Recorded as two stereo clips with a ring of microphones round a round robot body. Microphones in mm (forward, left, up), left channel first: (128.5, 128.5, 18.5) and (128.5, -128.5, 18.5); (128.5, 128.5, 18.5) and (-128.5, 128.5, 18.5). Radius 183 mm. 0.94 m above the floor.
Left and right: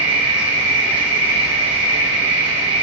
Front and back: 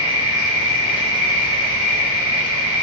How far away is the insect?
About 1.6 m.